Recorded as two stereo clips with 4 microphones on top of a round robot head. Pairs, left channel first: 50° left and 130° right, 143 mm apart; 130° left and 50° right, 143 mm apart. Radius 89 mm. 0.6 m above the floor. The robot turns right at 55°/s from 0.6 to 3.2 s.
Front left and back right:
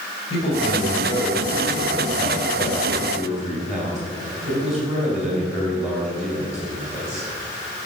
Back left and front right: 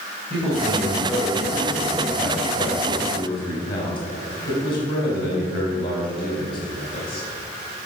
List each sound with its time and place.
0.3 s a man speaking: straight ahead, 3.5 m; by 7.2 s 145° left, 3.5 m